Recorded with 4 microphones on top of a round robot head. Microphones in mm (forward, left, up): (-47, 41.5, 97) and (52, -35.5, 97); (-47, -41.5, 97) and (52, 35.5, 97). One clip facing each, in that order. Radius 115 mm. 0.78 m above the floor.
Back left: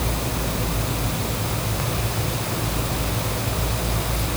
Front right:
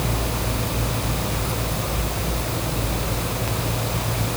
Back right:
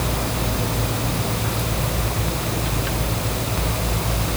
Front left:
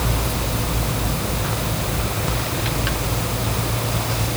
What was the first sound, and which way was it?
Only background noise.